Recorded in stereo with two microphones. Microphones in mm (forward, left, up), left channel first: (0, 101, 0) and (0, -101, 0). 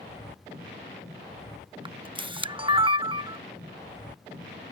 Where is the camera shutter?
25° right (ahead or behind).